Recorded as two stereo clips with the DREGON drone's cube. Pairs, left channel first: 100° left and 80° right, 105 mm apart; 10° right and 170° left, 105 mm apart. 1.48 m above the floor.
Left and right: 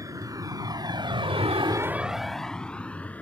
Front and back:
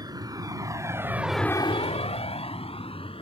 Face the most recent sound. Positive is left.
turn(degrees=25)